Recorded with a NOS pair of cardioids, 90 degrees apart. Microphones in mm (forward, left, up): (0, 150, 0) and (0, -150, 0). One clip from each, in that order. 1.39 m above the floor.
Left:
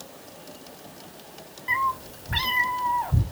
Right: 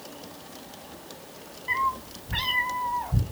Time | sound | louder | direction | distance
1.7 | a cat meowing | left 2 dB | 25° left | 2.5 m